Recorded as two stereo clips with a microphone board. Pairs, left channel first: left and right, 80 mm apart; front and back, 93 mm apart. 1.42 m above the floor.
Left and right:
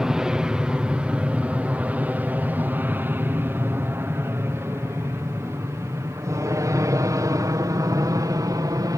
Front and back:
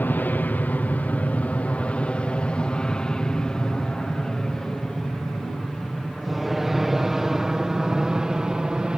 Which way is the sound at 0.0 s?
20° right.